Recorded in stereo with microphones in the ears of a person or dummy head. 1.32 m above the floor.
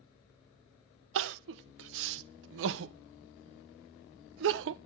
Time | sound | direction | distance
1.1 | crying | 70° right (ahead or behind) | 0.5 m